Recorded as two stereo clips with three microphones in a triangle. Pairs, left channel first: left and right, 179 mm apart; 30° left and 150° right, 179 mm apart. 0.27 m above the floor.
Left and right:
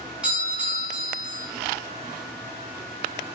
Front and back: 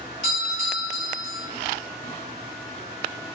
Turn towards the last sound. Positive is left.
turn(degrees=-175)